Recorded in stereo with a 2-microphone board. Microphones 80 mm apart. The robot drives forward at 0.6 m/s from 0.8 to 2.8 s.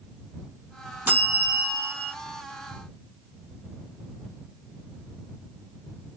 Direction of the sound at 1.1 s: 20° right (ahead or behind).